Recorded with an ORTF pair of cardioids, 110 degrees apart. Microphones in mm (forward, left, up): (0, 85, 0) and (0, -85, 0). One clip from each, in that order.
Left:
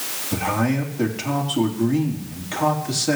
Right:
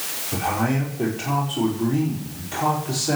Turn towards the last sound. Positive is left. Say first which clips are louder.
# left 1 dB
turn(degrees=60)